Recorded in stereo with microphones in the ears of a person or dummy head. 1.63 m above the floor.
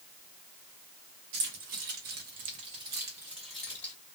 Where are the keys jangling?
60° right (ahead or behind), 1.4 m; by 3.9 s 15° left (ahead or behind), 1.3 m.